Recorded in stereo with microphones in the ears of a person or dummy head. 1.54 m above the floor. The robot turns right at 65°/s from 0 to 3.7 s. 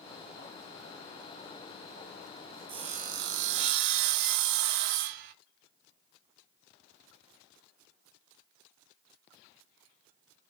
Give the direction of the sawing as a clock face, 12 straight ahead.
5 o'clock.